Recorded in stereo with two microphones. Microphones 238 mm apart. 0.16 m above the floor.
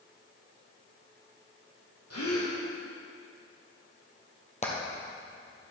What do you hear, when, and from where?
2.1 s a gasp: 80° left, 2.5 m
4.6 s hammering: 30° left (ahead or behind), 1.8 m